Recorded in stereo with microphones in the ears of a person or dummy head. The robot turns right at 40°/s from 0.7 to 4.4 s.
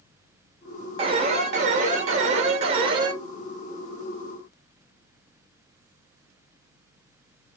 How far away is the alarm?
About 0.9 m.